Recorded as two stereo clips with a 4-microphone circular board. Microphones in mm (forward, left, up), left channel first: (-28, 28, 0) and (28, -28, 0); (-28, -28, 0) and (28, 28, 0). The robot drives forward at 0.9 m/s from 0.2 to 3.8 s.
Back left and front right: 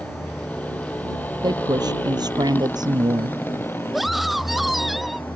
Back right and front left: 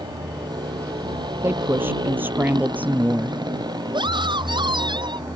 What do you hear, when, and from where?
0.0 s a motorcycle: 60° left; by 5.4 s 70° left
1.4 s a woman speaking: 15° right; by 3.4 s 25° right
3.9 s a scream: 45° left